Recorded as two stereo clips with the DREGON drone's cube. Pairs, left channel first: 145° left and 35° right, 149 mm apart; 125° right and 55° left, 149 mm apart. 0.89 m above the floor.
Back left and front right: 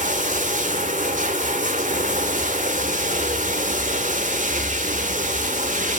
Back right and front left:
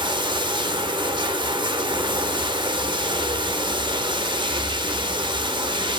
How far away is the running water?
About 1.7 m.